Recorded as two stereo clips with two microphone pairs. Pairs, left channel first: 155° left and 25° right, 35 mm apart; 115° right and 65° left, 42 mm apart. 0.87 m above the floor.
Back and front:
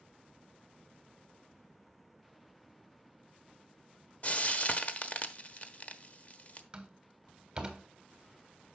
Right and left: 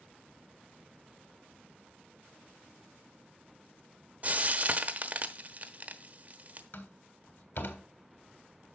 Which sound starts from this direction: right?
A door slam, at 6.7 s.